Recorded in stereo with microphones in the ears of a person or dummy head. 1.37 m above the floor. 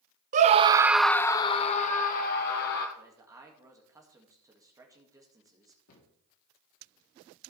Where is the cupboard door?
85° left, 3 m.